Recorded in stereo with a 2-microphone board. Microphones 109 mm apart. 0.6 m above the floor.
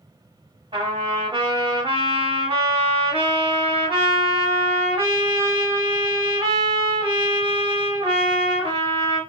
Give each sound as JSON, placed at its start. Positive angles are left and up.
{"t": 0.7, "sound": "a trumpet", "side_deg": -55, "distance_m": 1.7}